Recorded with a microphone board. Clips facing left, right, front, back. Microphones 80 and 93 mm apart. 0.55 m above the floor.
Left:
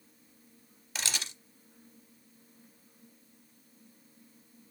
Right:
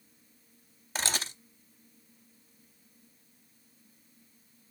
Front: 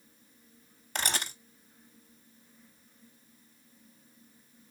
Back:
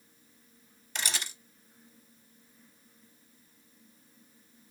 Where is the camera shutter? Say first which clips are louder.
Right 4 dB, front 3 dB; 40° right, 0.7 m.